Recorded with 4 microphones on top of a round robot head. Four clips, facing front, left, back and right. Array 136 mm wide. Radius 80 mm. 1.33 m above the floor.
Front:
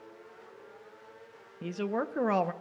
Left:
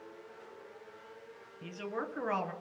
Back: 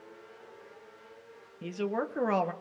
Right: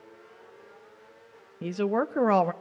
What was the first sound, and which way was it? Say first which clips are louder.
A woman speaking: right 12 dB, even; 85° right.